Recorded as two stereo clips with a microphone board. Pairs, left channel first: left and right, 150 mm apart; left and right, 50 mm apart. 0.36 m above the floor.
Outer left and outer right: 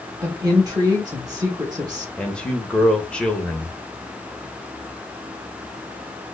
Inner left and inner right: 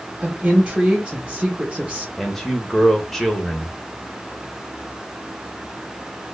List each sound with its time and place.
0.2 s a woman speaking: 25° right (ahead or behind), 1.6 m
2.2 s a man speaking: 5° left (ahead or behind), 0.9 m